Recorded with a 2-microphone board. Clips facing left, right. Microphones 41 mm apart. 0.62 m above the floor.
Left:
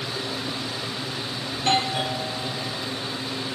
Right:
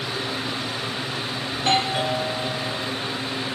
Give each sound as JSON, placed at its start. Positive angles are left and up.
{"t": 1.5, "sound": "a doorbell", "side_deg": -20, "distance_m": 2.5}